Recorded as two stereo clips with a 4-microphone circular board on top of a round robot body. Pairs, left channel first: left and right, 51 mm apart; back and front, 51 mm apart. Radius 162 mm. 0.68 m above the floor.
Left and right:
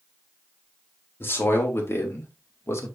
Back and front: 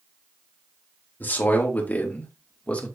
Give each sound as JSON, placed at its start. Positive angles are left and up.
{"t": 1.2, "sound": "a man speaking", "azimuth_deg": 130, "distance_m": 3.0}